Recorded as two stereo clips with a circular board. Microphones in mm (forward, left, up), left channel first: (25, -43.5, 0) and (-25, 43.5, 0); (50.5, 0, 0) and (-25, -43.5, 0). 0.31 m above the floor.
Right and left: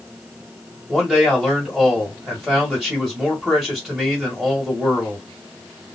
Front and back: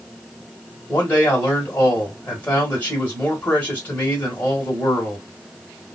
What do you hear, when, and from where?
0.9 s a man speaking: 40° left, 1.3 m